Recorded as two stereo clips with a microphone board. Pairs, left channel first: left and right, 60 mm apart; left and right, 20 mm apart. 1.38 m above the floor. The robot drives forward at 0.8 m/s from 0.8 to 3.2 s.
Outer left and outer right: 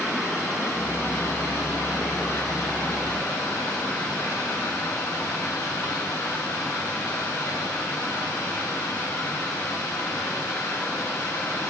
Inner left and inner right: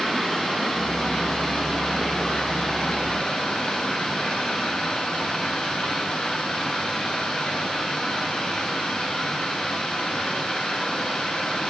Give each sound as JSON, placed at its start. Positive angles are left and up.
{"t": 0.0, "sound": "running water", "side_deg": 65, "distance_m": 8.0}